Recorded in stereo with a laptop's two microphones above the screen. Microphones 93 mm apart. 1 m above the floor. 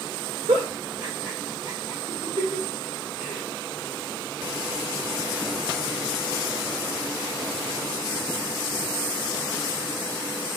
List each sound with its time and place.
0.5 s a giggle: 55° right (ahead or behind), 4 m